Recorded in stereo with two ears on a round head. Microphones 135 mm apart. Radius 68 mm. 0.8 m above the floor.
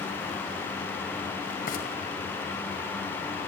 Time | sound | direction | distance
1.7 | frying | 70° left (ahead or behind) | 5.5 m